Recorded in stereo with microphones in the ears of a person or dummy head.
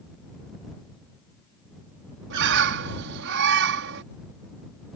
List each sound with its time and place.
2.3 s a bird: 65° right (ahead or behind)